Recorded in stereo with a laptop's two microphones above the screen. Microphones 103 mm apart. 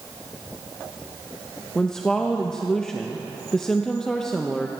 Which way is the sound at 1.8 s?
5° left (ahead or behind).